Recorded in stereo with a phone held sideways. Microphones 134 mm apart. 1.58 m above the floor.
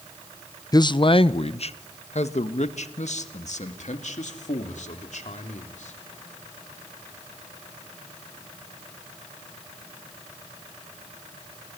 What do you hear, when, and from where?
0.7 s a man speaking: 30° left (ahead or behind), 0.6 m; by 6.0 s 60° left (ahead or behind), 3.5 m